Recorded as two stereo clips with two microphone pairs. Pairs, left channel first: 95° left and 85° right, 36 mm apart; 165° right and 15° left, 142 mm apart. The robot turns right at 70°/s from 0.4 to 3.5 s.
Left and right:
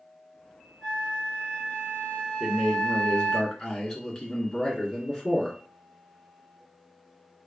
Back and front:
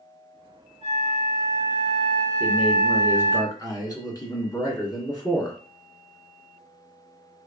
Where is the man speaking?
90° left, 1.5 m; by 5.6 s 165° left, 1.5 m.